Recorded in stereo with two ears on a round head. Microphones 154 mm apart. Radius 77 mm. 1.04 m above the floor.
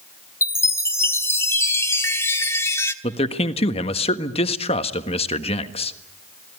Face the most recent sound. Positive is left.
turn(degrees=40)  # may be behind; listen again after turning